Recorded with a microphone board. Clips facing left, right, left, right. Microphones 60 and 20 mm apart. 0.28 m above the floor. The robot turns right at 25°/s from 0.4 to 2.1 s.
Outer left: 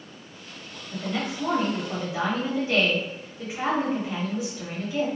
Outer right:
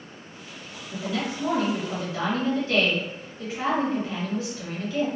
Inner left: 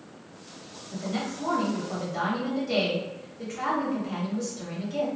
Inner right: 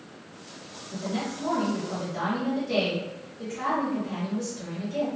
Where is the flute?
No flute in this recording.